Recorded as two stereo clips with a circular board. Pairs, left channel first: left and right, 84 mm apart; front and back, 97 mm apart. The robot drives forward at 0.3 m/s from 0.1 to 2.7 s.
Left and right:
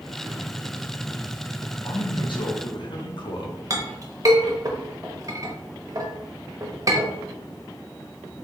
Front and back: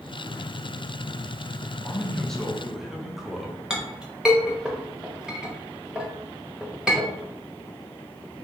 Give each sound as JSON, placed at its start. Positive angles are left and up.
{"t": 1.8, "sound": "a man speaking", "azimuth_deg": 70, "distance_m": 0.7}
{"t": 3.7, "sound": "a clink", "azimuth_deg": -105, "distance_m": 0.8}